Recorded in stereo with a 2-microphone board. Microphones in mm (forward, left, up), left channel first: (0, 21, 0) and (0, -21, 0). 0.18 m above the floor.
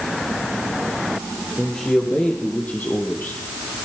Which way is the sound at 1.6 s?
25° left (ahead or behind).